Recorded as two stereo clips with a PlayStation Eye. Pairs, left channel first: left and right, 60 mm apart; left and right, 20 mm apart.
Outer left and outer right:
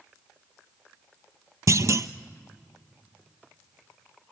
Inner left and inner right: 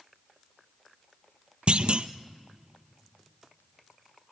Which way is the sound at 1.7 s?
55° right (ahead or behind).